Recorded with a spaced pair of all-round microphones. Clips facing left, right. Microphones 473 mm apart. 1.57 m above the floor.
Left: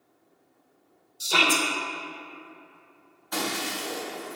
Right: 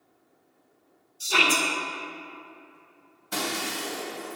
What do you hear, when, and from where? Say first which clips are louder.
1.2 s a shout: left 1 dB; 55° left (ahead or behind), 1.1 m
3.3 s breaking glass: left 1 dB; 45° right (ahead or behind), 2 m